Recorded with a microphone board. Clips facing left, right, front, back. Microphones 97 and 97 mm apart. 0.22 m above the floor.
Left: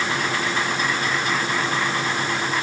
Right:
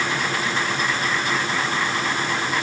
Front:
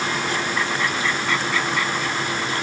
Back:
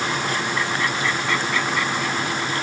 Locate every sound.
Only background noise.